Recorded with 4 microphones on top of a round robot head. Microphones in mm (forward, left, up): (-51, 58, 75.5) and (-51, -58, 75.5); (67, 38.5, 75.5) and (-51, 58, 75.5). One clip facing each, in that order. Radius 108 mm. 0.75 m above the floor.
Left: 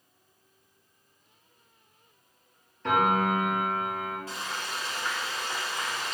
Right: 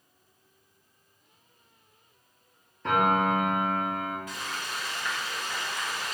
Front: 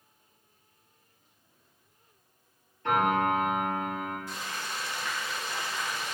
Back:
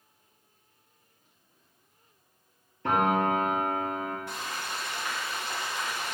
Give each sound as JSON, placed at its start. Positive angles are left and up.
{"t": 2.8, "sound": "a piano", "azimuth_deg": -175, "distance_m": 3.0}
{"t": 4.3, "sound": "frying", "azimuth_deg": 150, "distance_m": 1.9}